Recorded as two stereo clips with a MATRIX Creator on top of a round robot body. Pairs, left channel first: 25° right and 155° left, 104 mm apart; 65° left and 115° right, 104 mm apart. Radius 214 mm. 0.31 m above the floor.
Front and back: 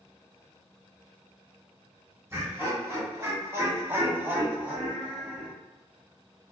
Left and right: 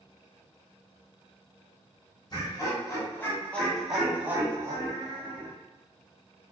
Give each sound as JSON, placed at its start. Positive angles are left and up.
{"t": 2.3, "sound": "laughter", "azimuth_deg": 100, "distance_m": 1.4}